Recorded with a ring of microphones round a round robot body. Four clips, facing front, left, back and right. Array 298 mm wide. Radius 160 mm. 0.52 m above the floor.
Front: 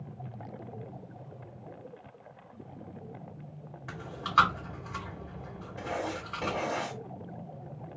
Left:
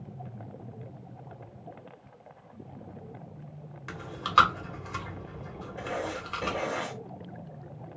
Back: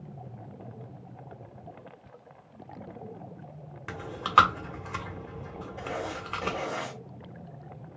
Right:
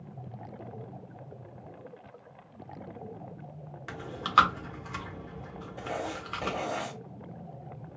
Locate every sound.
3.9 s chewing: 170° right, 1.1 m
5.8 s writing: 50° right, 1.4 m